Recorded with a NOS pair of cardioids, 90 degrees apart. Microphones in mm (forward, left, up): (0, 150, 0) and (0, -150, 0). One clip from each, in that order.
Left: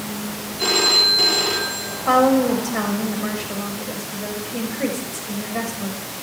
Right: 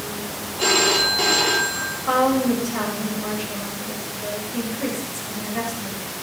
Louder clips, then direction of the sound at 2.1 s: Left 4 dB; 40° left.